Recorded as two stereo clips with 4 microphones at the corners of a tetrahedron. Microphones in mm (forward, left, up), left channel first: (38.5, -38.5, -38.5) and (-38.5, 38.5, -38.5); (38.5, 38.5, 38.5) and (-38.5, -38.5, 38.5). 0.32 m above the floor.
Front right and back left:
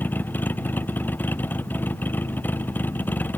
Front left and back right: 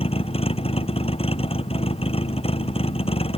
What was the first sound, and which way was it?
A vehicle, 25° left.